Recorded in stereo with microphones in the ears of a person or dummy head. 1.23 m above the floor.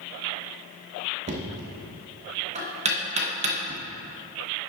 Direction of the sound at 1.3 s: 35° right (ahead or behind).